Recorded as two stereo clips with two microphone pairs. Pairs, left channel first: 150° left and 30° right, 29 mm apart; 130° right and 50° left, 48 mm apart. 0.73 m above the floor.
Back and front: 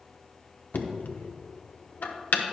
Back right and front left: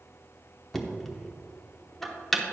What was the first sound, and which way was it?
Knocking, 145° left.